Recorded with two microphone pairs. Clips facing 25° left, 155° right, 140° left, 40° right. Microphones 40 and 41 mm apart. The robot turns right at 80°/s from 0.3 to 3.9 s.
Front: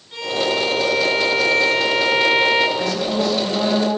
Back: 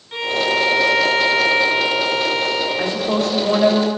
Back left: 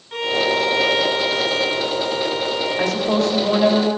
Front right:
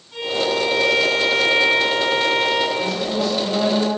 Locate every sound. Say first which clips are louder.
0.1 s a violin: back 2 dB, back left 2 dB; 150° left, 2 m; by 2.7 s 20° right, 2 m
2.8 s a woman speaking: back 1 dB, back left 3 dB; 135° left, 5 m; by 3.9 s 135° right, 5 m